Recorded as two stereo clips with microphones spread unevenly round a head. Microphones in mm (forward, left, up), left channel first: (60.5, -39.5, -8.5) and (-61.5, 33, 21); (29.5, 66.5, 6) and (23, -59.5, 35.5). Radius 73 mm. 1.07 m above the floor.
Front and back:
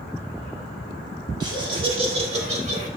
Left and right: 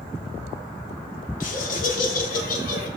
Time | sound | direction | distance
1.4 | laughter | 85° left | 3 m